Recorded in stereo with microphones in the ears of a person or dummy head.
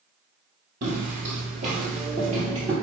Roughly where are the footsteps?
Right.